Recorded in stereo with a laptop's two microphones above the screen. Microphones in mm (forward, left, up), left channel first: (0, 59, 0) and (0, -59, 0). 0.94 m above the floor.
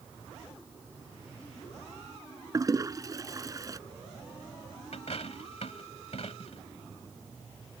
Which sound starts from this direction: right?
A toilet flushing, at 2.5 s.